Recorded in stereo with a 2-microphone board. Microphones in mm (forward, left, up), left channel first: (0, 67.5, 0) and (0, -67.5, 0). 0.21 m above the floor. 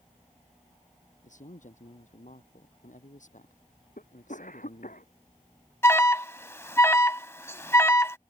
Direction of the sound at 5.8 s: 20° left (ahead or behind).